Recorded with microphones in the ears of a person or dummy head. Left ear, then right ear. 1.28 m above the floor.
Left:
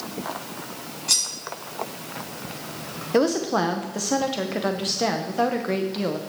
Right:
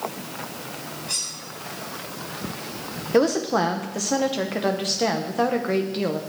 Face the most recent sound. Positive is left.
turn(degrees=5)  # may be behind; listen again after turning